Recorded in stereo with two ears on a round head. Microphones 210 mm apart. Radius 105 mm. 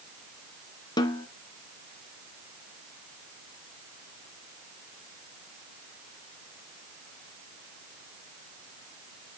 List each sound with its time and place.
1.0 s a snare drum: 20° left (ahead or behind), 1.8 m